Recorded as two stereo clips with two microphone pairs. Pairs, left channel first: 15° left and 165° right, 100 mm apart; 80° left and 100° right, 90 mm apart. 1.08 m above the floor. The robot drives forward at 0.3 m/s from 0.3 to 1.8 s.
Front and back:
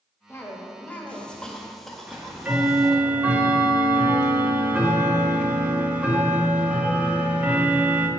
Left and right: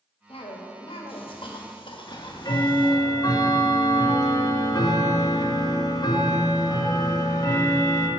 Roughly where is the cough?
Left.